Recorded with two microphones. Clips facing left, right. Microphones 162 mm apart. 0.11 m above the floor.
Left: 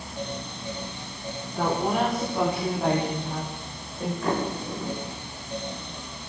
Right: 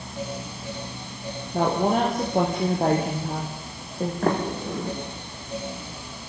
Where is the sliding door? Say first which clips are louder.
Right 3 dB; 55° right (ahead or behind), 8 m.